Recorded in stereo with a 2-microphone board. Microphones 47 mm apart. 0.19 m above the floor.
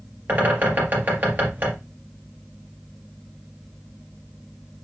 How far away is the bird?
About 4 m.